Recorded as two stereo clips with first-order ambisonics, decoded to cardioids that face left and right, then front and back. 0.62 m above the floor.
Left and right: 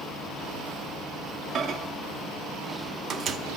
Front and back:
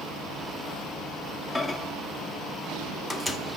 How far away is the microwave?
About 0.5 m.